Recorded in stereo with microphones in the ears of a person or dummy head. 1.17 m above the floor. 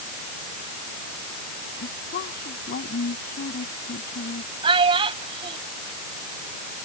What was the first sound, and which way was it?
A woman speaking, 45° left (ahead or behind).